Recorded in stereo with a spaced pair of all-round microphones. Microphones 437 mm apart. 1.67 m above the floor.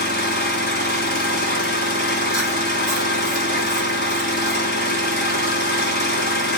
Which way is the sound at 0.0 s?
20° left (ahead or behind).